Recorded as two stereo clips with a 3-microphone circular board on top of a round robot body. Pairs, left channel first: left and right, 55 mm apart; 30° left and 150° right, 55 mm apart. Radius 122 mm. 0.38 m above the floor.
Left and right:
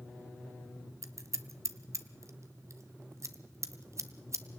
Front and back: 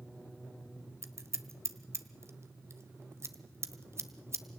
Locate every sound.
1.0 s scissors: 115° right, 1.4 m